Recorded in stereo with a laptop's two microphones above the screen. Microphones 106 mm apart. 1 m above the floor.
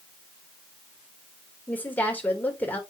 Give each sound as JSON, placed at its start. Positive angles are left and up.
{"t": 1.7, "sound": "a woman speaking", "side_deg": 15, "distance_m": 3.5}